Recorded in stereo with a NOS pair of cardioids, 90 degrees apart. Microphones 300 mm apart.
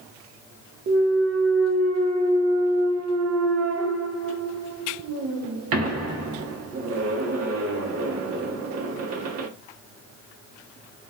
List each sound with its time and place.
0.9 s a clunk: 55° right, 0.7 m